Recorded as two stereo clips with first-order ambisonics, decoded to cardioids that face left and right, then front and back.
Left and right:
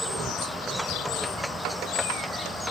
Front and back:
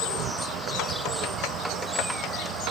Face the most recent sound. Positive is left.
turn(degrees=-170)